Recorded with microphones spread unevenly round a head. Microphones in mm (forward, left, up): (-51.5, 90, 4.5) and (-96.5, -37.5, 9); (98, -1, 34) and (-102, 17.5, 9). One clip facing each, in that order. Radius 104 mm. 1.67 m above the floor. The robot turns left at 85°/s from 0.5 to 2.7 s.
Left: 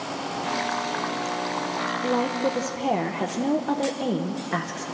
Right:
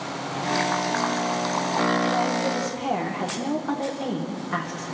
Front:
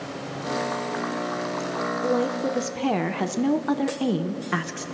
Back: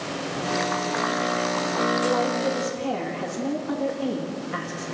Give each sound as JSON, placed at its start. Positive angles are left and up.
{"t": 2.0, "sound": "a woman speaking", "azimuth_deg": 60, "distance_m": 1.4}